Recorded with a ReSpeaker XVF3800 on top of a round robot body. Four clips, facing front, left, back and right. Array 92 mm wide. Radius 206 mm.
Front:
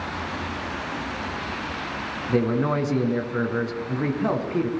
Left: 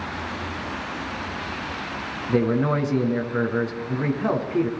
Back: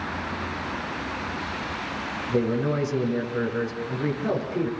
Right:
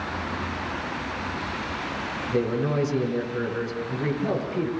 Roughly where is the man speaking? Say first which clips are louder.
Left 4 dB, front 2 dB; ahead left.